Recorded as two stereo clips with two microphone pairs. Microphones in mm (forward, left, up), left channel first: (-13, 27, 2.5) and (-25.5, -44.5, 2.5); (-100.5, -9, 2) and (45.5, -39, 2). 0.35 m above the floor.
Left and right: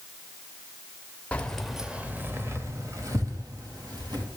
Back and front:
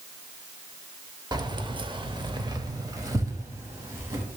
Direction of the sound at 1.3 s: 25° left.